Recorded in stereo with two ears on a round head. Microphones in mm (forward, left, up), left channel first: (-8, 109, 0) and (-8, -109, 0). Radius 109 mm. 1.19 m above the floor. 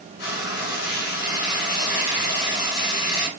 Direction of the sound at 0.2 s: 40° left (ahead or behind).